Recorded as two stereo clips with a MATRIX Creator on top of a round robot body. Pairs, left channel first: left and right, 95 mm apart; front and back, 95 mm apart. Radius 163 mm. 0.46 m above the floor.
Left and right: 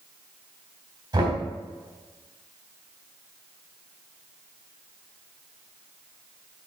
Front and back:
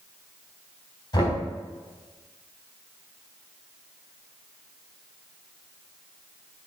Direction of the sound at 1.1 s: 50° right.